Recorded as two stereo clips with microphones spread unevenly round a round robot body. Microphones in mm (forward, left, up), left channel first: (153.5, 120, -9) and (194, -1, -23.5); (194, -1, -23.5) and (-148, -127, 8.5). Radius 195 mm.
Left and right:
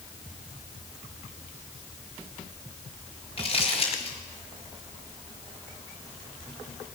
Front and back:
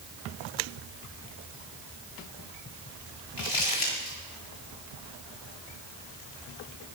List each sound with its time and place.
3.4 s crumpling: 65° left, 7.5 m